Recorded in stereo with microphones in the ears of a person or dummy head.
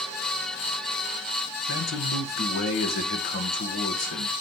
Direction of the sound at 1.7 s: 60° left (ahead or behind).